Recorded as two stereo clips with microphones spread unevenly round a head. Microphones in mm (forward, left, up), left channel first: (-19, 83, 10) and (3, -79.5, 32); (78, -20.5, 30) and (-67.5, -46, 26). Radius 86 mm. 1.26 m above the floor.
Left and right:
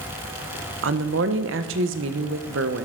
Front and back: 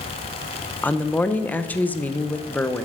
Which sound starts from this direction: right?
A woman speaking, at 0.8 s.